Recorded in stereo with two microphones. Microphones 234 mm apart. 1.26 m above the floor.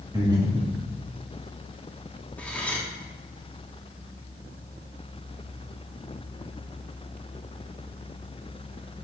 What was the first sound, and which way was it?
Breathing, 20° right (ahead or behind).